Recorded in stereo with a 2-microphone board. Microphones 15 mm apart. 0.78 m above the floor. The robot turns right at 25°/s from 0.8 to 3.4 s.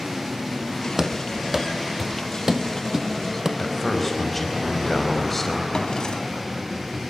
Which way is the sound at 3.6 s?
20° left (ahead or behind).